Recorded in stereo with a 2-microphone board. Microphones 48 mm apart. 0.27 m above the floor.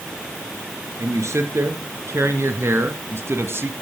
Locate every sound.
1.0 s a man speaking: 75° right (ahead or behind), 4.5 m; by 3.7 s 55° right (ahead or behind), 2 m